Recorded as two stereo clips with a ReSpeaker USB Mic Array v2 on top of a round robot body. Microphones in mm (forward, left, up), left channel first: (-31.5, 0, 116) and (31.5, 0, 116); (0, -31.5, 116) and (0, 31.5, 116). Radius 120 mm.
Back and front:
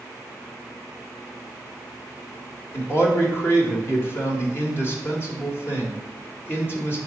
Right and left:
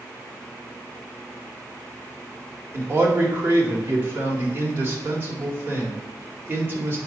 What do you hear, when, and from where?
2.7 s a man speaking: 140° left, 1.9 m